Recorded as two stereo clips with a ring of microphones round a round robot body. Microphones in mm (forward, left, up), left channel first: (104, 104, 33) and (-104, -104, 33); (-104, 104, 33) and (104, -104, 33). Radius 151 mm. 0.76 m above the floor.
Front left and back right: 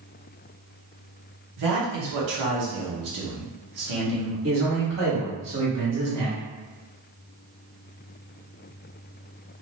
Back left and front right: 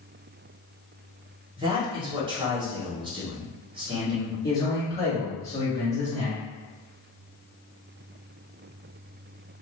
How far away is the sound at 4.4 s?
About 2.0 m.